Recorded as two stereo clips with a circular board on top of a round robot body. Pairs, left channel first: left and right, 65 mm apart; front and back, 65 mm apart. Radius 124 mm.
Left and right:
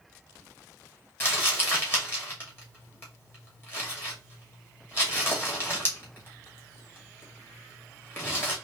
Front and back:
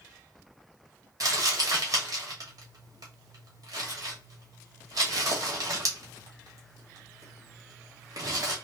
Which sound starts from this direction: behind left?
Crumpling, at 1.2 s.